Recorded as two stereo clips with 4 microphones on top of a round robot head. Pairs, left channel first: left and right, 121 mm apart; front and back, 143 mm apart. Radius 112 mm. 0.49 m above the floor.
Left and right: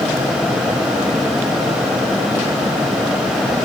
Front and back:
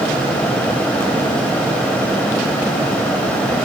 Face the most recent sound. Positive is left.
No sound to turn to.